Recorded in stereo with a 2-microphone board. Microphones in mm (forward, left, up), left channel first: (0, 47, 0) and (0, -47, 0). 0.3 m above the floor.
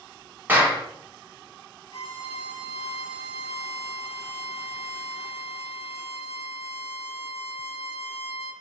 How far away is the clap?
About 0.9 m.